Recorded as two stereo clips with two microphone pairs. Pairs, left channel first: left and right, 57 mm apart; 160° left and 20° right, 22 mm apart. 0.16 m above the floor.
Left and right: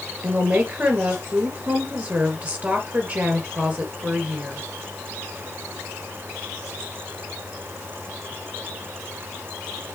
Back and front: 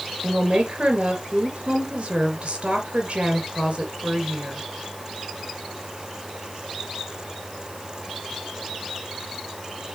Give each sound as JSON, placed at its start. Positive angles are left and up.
{"t": 0.2, "sound": "a woman speaking", "azimuth_deg": -30, "distance_m": 3.0}